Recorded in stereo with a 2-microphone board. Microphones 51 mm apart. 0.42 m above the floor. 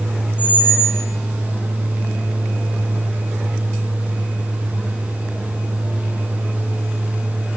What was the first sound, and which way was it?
A squeak, 40° left (ahead or behind).